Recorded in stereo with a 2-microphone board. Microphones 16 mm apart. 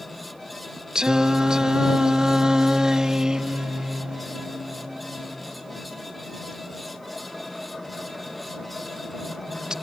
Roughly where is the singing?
Right.